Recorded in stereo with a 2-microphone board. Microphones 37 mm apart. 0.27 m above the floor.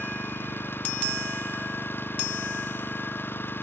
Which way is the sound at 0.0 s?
80° left.